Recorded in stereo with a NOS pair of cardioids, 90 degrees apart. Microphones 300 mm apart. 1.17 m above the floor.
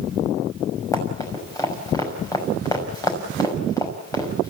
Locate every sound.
0.9 s running footsteps: 10° left, 6.5 m